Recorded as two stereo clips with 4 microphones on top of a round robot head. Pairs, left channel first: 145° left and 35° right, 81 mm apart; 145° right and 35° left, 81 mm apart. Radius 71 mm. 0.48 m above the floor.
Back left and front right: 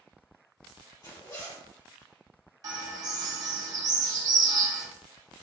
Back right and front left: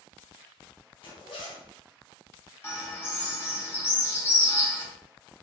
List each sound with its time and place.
1.0 s a zipper: 170° right, 1.3 m
2.6 s a bird: 85° right, 0.8 m